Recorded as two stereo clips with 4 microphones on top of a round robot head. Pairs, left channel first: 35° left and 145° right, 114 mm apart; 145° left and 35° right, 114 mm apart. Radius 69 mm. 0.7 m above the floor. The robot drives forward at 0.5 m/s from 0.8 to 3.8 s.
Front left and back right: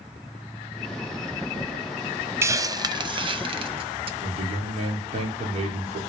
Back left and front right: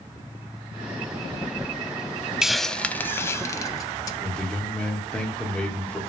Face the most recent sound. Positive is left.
turn(degrees=-135)